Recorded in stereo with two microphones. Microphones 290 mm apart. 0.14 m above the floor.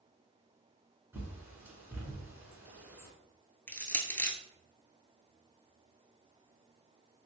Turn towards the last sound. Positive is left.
turn(degrees=5)  # may be behind; listen again after turning